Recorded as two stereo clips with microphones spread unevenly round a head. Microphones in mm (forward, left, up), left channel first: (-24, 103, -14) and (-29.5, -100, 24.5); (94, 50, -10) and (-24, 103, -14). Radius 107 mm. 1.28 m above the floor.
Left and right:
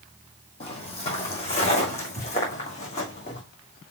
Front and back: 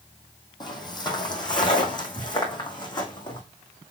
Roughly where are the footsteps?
Ahead left.